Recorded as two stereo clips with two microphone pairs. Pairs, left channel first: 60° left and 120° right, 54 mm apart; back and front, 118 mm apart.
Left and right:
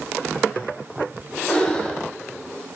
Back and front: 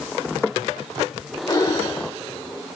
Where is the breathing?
130° left, 1.1 m.